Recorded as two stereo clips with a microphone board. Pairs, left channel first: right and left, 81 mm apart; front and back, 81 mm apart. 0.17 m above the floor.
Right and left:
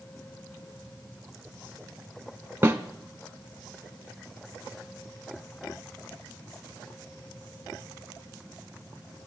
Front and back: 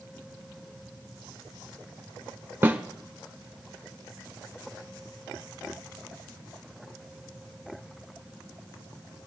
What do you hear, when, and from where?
2.6 s a snare drum: 135° left, 0.8 m